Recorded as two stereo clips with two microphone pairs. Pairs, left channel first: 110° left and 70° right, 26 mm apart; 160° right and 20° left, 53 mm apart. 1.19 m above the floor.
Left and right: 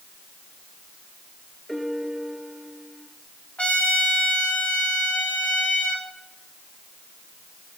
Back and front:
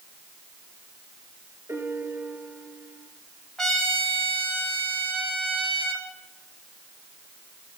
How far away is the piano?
About 3.5 m.